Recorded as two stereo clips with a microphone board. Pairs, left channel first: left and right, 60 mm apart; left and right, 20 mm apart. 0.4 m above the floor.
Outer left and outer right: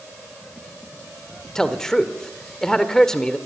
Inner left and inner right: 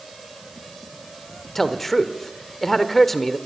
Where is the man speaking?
10° left (ahead or behind), 1.4 m.